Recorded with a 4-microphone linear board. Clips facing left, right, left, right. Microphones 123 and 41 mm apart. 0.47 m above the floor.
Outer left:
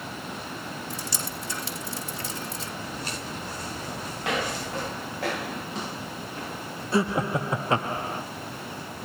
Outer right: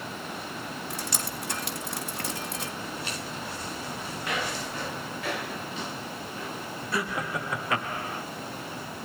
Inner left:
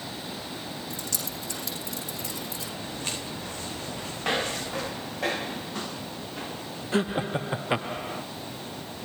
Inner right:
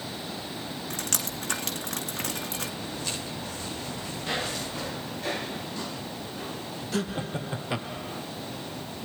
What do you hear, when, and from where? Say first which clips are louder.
0.9 s dripping: even, inner right 2 dB; 65° right (ahead or behind), 2 m
2.8 s footsteps: outer left 1 dB, even; 40° left (ahead or behind), 6.5 m; by 4.9 s 50° left (ahead or behind), 8 m
4.2 s footsteps: outer left 4 dB, inner left 4 dB; 85° left, 8.5 m
6.9 s laughter: outer left 7 dB, inner left 5 dB; 25° left (ahead or behind), 0.8 m